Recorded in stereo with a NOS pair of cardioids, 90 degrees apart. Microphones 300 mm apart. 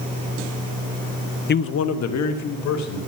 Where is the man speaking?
35° left, 0.6 m; by 3.0 s 70° left, 2.5 m.